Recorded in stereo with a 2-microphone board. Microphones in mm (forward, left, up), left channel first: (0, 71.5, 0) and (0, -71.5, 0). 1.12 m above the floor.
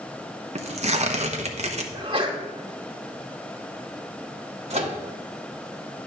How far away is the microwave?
About 1.3 m.